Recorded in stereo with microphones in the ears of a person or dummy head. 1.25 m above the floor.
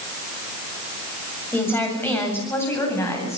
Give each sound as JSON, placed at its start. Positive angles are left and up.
{"t": 1.5, "sound": "a woman speaking", "side_deg": 10, "distance_m": 7.5}